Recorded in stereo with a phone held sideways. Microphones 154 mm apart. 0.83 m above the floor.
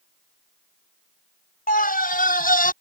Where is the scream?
65° left (ahead or behind); by 2.7 s 60° left (ahead or behind).